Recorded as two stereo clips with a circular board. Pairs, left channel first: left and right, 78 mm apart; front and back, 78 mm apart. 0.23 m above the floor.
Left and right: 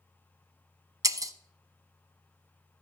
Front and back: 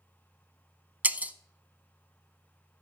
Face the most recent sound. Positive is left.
turn(degrees=-115)